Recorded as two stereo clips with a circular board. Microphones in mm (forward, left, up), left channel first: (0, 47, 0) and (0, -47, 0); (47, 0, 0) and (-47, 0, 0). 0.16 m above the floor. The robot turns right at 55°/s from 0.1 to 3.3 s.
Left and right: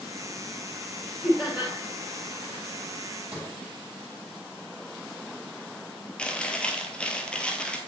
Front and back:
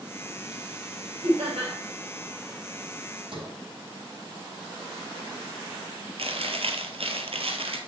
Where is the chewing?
170° left, 0.8 m.